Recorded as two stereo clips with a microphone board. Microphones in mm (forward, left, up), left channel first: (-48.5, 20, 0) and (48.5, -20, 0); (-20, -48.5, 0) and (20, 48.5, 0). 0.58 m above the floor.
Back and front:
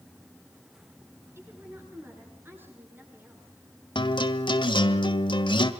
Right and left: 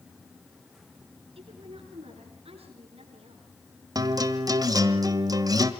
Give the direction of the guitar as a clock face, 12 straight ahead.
8 o'clock.